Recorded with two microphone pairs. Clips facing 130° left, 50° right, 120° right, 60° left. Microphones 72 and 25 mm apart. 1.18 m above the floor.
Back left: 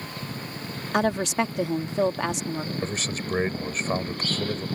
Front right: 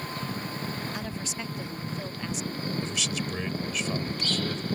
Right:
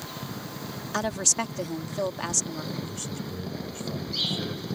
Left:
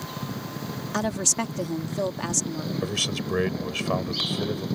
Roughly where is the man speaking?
Left.